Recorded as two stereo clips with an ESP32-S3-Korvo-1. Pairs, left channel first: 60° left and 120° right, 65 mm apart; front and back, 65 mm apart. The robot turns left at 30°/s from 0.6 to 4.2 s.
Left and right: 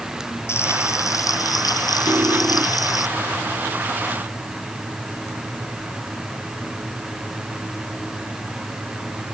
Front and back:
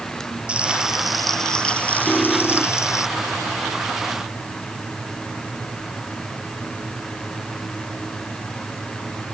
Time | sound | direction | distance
0.5 | frying | 110° left | ?
2.1 | cutlery clinking | 75° right | ?